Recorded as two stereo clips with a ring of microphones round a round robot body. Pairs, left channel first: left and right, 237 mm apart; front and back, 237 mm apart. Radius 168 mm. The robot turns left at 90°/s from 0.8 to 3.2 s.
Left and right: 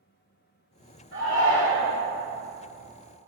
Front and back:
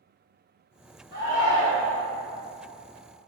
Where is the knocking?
No knocking in this recording.